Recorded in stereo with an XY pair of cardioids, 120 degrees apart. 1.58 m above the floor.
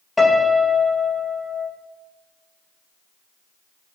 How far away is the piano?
About 2.5 m.